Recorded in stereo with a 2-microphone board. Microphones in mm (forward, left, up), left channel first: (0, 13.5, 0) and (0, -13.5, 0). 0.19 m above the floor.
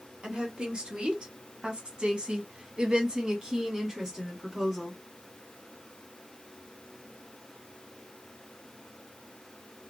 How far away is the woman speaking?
About 1.8 m.